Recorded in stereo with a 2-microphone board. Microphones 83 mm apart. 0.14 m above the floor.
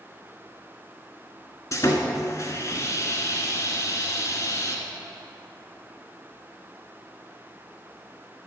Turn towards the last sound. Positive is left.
turn(degrees=40)  # may be behind; listen again after turning